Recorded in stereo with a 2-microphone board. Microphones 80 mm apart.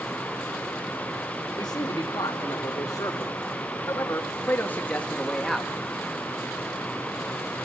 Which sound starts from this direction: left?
A man speaking, at 1.6 s.